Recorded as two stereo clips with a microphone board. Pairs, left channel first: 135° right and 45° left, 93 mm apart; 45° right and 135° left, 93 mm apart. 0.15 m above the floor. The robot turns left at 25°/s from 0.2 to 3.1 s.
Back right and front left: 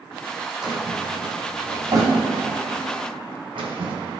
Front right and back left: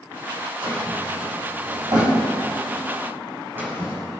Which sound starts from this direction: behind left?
A drawer, at 0.6 s.